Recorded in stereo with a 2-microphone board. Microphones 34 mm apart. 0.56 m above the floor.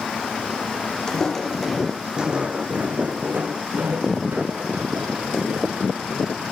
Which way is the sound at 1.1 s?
20° left (ahead or behind).